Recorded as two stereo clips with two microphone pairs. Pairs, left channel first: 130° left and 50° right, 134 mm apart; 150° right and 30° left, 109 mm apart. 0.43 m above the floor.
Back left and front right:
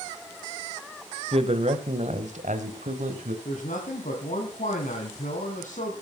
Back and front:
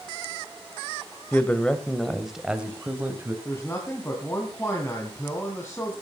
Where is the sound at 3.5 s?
140° left, 3 m.